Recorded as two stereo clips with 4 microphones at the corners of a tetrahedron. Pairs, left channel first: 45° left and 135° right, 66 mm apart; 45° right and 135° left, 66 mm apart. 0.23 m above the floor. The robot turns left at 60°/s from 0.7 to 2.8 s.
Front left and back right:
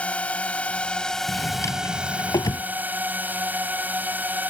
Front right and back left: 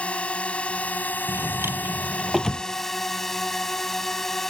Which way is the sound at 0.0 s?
Straight ahead.